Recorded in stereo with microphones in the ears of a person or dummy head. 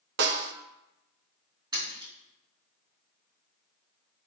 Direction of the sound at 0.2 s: 60° right (ahead or behind).